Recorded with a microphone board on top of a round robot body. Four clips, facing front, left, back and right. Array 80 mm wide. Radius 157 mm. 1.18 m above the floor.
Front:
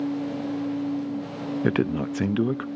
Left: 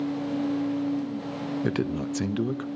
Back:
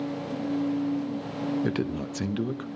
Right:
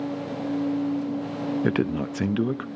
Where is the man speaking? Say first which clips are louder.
Right 2 dB, front 5 dB; 25° right, 0.6 m.